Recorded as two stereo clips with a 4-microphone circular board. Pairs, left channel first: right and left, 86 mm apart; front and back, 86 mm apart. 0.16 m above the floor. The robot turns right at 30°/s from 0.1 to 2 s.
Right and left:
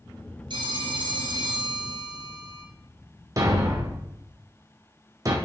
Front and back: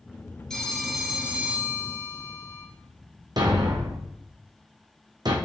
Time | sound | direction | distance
0.5 | a phone ringing | 85° left | 1.5 m
3.4 | a thud | 140° left | 1.3 m